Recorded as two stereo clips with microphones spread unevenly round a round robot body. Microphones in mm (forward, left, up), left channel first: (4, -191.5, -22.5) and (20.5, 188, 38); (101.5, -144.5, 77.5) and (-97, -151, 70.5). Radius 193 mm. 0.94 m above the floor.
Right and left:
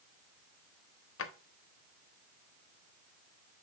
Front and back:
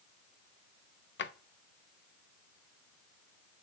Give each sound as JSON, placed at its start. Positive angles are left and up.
{"t": 1.2, "sound": "a drawer", "azimuth_deg": -35, "distance_m": 0.7}